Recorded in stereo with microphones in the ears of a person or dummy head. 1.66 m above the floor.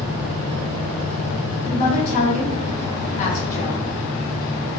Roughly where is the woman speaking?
Left.